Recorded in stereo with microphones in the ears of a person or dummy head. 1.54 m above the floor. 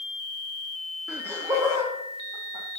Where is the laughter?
10° right (ahead or behind), 0.7 m; by 2.8 s 25° right (ahead or behind), 1.9 m.